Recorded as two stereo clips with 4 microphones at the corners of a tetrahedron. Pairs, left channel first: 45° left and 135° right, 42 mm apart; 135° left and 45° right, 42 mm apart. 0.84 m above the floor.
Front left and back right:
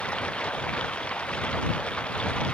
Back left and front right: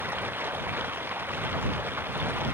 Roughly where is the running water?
Ahead.